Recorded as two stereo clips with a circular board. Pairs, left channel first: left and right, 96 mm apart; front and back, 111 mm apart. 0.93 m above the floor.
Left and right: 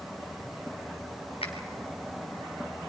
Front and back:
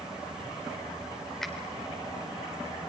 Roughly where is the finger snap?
Left.